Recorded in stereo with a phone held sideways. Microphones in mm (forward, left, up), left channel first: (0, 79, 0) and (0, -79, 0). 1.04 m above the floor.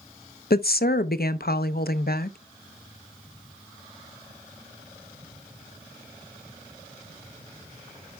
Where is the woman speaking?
75° left (ahead or behind), 0.6 m.